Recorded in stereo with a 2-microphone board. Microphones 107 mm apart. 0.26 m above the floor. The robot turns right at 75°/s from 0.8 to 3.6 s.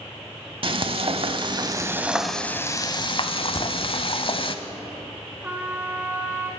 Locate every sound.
0.6 s frying: 110° right, 0.7 m; by 4.5 s 100° left, 0.7 m
3.5 s a crack: 25° left (ahead or behind), 2.5 m
5.4 s a trumpet: 15° right (ahead or behind), 1.2 m